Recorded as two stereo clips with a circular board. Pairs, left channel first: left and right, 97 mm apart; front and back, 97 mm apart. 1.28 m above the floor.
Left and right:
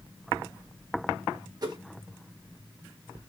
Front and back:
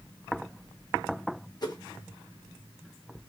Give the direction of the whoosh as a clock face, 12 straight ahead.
1 o'clock.